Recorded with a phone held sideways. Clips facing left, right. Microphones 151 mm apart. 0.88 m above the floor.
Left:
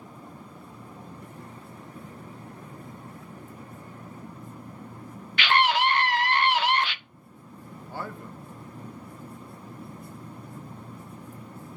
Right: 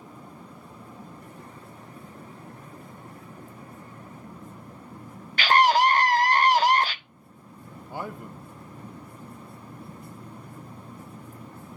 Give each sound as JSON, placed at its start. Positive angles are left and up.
{"t": 5.4, "sound": "a scream", "side_deg": -40, "distance_m": 0.6}
{"t": 7.9, "sound": "a man speaking", "side_deg": -15, "distance_m": 0.7}